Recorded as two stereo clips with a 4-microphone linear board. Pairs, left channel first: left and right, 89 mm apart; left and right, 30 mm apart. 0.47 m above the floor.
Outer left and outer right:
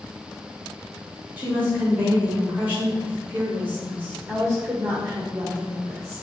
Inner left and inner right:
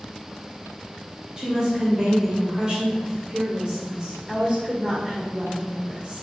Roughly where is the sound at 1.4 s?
Right.